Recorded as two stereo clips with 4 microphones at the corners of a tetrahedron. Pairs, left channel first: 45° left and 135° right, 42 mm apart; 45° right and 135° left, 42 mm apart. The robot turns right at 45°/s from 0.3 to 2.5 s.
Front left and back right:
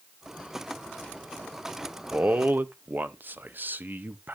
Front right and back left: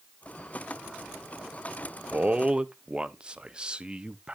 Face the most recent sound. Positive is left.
turn(degrees=-160)